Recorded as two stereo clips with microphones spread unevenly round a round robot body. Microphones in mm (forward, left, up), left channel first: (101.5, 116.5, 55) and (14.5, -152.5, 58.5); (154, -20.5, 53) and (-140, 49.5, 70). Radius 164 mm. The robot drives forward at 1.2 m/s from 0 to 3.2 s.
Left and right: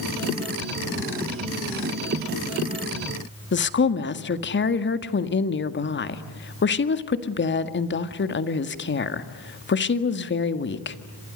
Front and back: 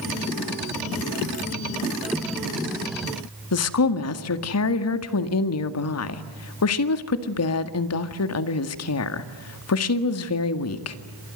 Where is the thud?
No thud in this recording.